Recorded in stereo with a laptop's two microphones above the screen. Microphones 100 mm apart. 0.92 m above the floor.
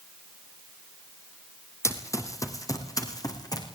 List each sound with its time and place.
1.8 s running footsteps: 30° left (ahead or behind), 2 m; by 3.6 s 40° left (ahead or behind), 3.5 m